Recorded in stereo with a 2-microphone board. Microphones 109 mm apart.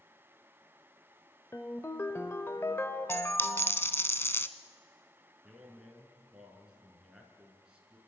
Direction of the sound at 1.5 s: 25° left (ahead or behind).